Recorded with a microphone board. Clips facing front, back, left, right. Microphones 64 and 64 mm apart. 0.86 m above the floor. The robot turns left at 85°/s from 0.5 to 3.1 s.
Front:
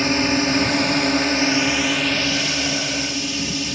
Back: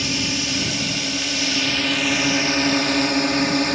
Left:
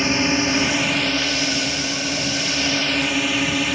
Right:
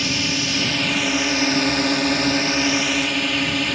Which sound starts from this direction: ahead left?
A drone, at 0.0 s.